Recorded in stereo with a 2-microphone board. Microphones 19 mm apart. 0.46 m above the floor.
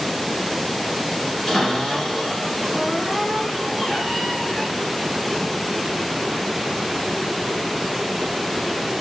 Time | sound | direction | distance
1.5 | a cupboard door | 35° left (ahead or behind) | 2 m